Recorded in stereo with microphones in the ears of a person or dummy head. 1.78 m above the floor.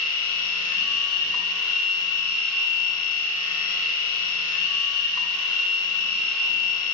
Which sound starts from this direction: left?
A machine running, at 0.0 s.